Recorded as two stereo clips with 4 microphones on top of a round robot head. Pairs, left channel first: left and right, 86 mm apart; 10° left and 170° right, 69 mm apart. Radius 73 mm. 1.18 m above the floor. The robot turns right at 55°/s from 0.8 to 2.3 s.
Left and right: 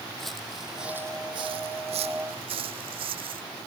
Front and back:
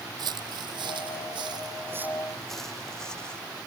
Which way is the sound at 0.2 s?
175° left.